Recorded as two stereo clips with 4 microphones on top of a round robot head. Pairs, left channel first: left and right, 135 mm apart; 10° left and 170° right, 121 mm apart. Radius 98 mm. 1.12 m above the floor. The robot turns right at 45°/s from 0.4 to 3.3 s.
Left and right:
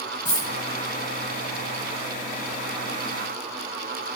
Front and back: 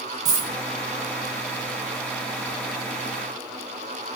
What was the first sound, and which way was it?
A dropped coin, 150° left.